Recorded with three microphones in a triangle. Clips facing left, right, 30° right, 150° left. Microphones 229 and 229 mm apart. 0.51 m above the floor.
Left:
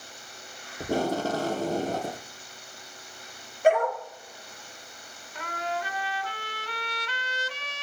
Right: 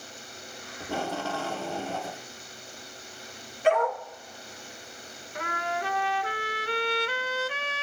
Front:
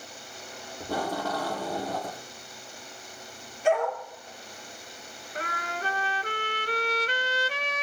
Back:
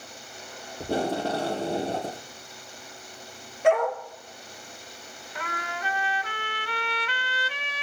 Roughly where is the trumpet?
Right.